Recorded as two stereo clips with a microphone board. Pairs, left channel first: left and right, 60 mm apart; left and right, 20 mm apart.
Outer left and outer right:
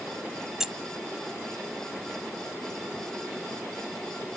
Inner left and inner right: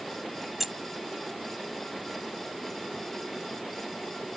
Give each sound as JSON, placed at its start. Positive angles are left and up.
{"t": 0.6, "sound": "keys jangling", "side_deg": -10}